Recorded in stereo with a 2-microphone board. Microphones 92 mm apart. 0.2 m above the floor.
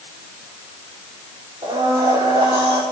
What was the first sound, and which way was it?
A blender, 65° right (ahead or behind).